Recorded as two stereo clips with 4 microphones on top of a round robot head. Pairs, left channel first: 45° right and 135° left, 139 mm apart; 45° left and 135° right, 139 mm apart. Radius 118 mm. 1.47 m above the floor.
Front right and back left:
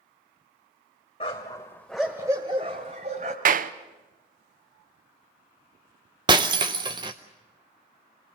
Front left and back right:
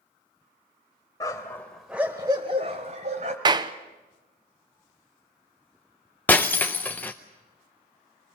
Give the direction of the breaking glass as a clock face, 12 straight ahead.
8 o'clock.